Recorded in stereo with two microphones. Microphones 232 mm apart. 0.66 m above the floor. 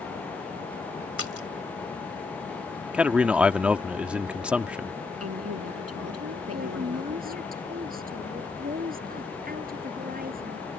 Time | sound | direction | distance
1.2 | a splash | 70° left (ahead or behind) | ?
2.9 | a man speaking | 5° right (ahead or behind) | ?
5.2 | a woman speaking | 80° right | ?
6.5 | a woman speaking | 35° right (ahead or behind) | ?